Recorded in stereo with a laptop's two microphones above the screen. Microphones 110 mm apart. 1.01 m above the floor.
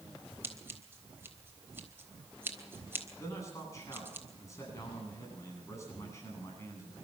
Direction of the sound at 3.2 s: 25° left (ahead or behind).